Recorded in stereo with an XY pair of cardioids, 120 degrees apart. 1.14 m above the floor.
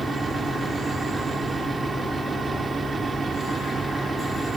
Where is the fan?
30° right, 1.5 m.